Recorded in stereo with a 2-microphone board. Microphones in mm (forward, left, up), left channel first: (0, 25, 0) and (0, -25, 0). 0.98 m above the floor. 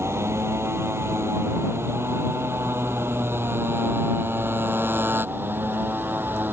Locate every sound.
0.0 s a motorcycle: 60° right (ahead or behind); by 6.5 s 45° right (ahead or behind)